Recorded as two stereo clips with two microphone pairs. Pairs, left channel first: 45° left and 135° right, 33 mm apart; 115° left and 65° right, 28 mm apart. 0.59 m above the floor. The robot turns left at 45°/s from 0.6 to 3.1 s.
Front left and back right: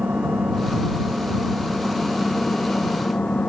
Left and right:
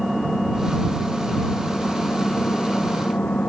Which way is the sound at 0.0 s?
150° right.